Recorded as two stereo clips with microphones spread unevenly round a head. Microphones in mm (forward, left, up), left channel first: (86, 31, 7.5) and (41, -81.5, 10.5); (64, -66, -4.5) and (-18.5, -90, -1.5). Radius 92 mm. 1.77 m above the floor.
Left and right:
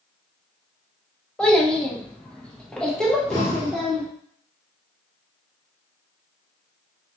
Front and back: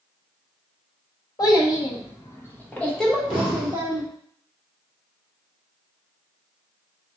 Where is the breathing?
45° left, 2.5 m.